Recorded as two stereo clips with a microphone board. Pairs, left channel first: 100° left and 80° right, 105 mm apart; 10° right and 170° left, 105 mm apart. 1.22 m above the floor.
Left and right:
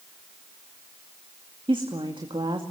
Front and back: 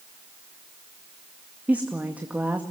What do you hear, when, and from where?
1.7 s a woman speaking: 115° right, 2 m